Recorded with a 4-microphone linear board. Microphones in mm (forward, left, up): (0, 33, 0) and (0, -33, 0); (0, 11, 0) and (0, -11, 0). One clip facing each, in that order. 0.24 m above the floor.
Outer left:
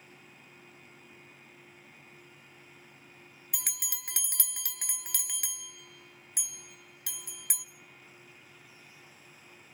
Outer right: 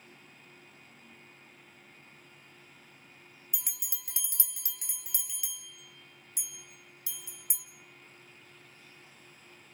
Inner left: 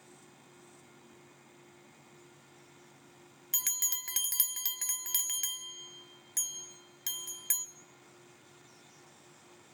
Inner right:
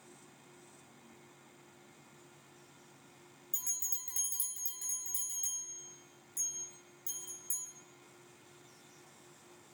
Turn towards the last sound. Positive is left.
turn(degrees=70)  # may be behind; listen again after turning